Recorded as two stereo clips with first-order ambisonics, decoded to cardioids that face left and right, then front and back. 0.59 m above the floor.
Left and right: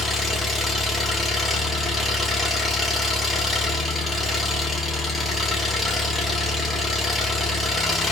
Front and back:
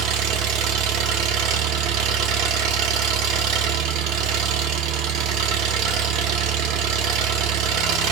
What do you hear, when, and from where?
0.0 s an engine running: 170° left, 0.7 m